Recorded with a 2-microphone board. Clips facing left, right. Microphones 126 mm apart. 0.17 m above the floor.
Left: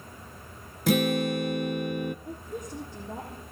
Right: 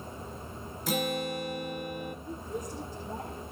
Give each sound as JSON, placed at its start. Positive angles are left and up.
{"t": 0.9, "sound": "a guitar", "side_deg": 70, "distance_m": 0.8}
{"t": 2.2, "sound": "a woman speaking", "side_deg": 60, "distance_m": 7.5}